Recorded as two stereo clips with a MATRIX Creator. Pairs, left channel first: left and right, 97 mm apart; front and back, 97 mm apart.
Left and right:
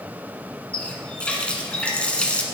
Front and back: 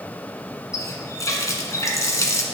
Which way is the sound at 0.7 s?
20° left.